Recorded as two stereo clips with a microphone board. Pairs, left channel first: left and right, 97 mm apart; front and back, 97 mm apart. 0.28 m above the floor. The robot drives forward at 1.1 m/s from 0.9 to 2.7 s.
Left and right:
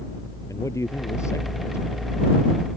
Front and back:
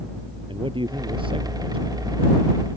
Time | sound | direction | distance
0.5 | a man speaking | 150° left | ?